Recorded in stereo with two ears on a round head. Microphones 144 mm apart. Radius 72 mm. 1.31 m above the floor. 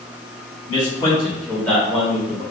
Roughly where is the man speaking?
Left.